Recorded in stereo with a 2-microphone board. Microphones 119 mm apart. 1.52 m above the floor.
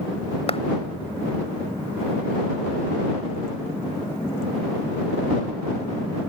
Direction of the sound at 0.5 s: 50° left (ahead or behind).